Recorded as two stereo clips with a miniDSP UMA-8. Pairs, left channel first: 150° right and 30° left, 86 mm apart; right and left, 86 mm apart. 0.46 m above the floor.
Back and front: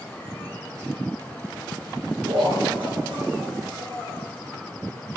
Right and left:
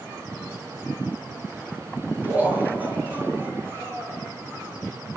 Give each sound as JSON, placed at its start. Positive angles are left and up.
{"t": 2.2, "sound": "laughter", "azimuth_deg": 15, "distance_m": 8.0}